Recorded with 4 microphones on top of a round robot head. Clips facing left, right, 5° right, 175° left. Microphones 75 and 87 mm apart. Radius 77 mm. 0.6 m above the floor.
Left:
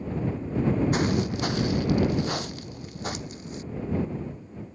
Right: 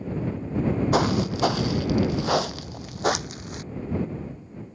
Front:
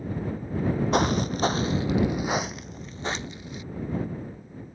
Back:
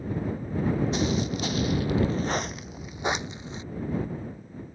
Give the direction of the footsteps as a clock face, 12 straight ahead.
2 o'clock.